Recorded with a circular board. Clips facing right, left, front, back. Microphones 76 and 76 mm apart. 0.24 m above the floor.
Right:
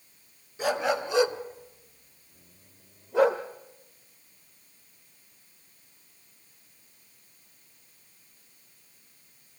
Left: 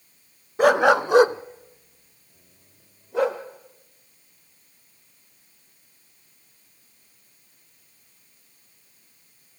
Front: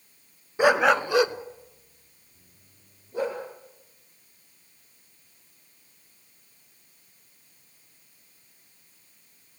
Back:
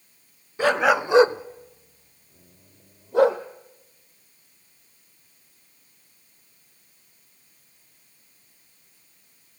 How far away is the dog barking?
About 0.8 m.